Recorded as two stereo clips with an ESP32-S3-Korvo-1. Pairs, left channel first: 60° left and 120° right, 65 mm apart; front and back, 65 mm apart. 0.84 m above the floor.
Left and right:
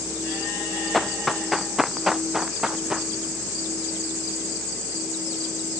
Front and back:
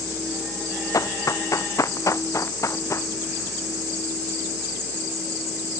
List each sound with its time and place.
0.9 s running footsteps: 30° right; by 3.1 s 40° right